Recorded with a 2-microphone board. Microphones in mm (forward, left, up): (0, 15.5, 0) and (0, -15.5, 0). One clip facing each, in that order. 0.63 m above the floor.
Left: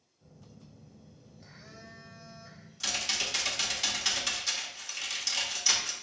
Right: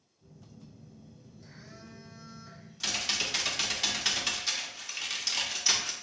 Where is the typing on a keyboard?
10° right (ahead or behind), 0.7 m.